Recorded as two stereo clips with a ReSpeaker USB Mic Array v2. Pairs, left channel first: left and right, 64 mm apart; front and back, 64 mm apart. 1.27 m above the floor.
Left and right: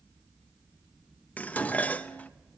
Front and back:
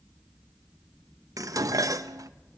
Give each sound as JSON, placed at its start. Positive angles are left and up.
{"t": 1.4, "sound": "dishes clattering", "azimuth_deg": 155, "distance_m": 0.9}